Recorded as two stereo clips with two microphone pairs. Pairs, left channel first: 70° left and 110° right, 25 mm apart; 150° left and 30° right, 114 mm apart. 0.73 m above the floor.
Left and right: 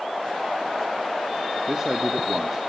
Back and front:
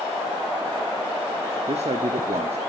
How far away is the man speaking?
About 1.0 m.